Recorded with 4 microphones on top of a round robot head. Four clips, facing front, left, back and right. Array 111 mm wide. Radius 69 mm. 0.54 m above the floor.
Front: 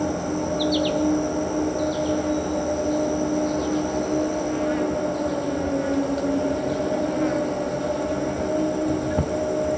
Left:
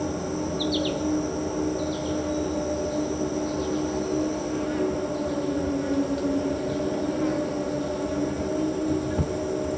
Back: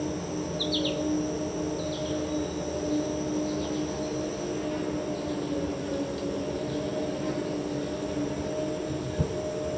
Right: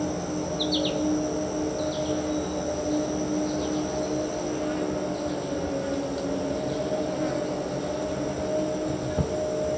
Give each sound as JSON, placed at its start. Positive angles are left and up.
{"t": 0.0, "sound": "an insect", "azimuth_deg": -10, "distance_m": 1.3}